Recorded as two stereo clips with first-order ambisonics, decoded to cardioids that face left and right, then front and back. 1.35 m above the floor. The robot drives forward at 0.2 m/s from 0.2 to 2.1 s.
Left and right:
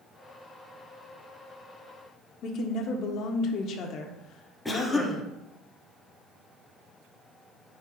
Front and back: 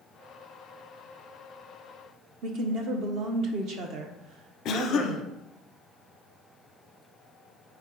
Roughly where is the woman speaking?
Behind left.